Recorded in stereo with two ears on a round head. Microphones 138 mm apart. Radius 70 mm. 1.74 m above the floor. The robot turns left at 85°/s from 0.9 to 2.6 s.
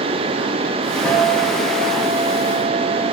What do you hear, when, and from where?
1.0 s a guitar: 175° left, 1.9 m; by 3.1 s 40° left, 1.9 m